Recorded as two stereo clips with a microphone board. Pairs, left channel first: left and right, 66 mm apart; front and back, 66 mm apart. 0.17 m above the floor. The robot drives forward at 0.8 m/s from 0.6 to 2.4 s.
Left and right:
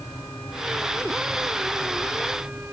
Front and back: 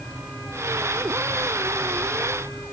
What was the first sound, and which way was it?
Only background noise.